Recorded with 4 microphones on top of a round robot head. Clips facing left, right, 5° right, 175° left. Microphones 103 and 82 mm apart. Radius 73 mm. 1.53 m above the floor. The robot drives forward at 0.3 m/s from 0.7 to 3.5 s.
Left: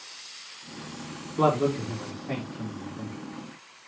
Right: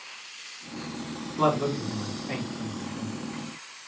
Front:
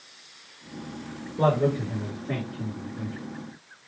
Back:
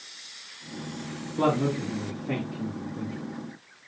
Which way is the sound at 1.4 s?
165° left.